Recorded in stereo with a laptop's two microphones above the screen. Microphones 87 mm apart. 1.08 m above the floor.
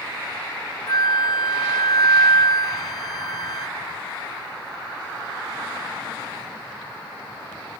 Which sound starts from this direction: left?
A flute, at 0.9 s.